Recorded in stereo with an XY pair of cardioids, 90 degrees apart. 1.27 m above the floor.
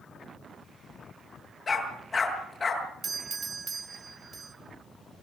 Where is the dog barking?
35° left, 8 m.